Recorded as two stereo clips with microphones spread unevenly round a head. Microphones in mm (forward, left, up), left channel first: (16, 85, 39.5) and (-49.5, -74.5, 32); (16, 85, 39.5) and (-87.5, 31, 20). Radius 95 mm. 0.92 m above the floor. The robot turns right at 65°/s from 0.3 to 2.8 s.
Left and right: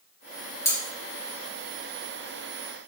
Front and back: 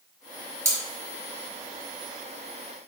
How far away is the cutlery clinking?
About 1.6 m.